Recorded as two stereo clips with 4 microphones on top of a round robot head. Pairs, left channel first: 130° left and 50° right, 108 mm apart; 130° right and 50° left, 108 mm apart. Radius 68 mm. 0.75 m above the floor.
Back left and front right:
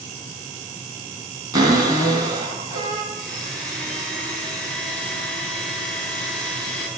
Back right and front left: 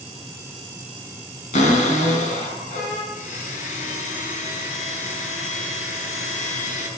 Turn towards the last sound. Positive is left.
turn(degrees=-145)